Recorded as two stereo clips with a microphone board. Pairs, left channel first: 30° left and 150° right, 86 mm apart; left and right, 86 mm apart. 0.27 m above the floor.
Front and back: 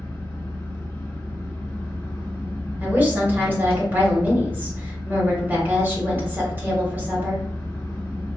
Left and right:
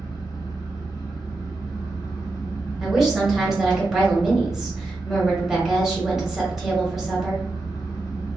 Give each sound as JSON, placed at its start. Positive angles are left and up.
{"t": 0.0, "sound": "an engine running", "azimuth_deg": 80, "distance_m": 1.5}
{"t": 2.8, "sound": "a woman speaking", "azimuth_deg": -165, "distance_m": 1.2}